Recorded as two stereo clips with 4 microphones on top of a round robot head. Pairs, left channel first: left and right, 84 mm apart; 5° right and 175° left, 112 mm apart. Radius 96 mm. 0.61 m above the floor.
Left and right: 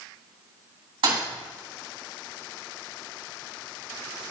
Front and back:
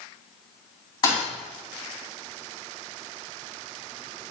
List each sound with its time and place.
1.0 s a thud: 60° right, 2.5 m